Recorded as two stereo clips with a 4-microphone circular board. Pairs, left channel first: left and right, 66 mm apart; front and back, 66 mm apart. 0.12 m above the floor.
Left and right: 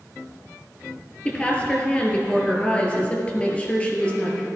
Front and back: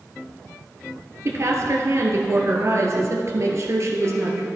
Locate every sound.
1.2 s a woman speaking: 155° left, 1.8 m